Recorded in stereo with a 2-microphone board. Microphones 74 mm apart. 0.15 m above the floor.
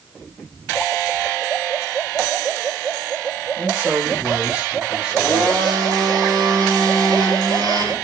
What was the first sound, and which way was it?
A man speaking, 30° right (ahead or behind).